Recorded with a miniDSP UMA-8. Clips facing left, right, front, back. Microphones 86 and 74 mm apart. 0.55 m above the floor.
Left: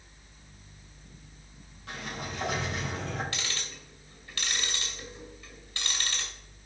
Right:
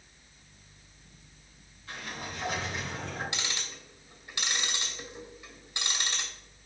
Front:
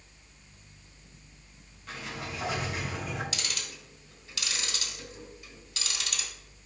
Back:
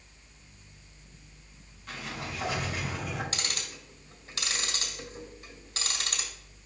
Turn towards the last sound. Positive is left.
turn(degrees=-155)